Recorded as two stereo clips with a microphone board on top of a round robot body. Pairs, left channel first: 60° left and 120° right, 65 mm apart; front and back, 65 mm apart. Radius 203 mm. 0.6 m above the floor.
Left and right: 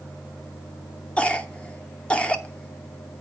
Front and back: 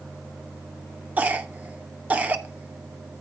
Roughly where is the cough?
Behind left.